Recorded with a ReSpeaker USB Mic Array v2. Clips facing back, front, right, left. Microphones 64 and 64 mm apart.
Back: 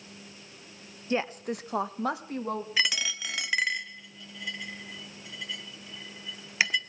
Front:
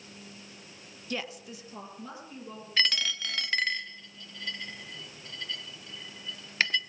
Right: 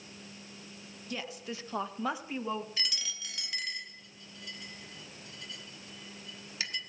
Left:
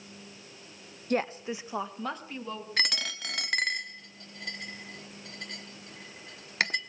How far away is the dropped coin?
About 0.8 m.